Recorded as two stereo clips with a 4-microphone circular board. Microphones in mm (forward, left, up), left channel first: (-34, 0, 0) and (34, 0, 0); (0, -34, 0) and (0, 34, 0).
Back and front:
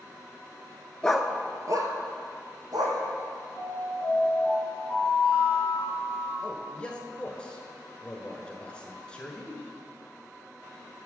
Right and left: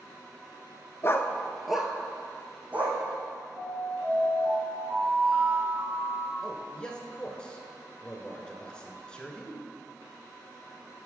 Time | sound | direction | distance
1.0 | a dog barking | 105° right | 0.5 m
3.6 | an alarm | 35° left | 2 m
6.4 | a man speaking | 140° right | 1.1 m